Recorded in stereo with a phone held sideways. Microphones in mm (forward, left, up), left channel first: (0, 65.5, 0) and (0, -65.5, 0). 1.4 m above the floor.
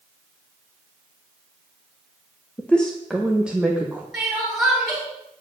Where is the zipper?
No zipper in this recording.